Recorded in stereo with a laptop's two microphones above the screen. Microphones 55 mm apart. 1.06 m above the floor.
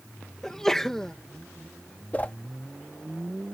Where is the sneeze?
10° left (ahead or behind).